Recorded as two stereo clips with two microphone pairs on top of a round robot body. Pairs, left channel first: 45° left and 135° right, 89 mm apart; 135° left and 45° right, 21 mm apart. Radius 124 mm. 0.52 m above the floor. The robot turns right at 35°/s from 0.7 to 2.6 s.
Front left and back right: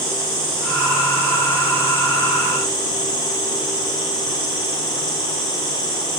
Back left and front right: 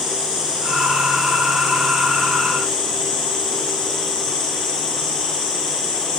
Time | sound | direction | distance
0.0 | an insect | 20° left | 8.5 m